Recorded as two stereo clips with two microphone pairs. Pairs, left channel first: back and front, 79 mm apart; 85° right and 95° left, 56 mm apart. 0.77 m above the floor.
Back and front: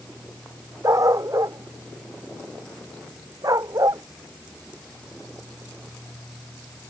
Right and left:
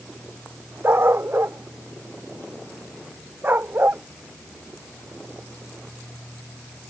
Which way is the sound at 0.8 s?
45° left.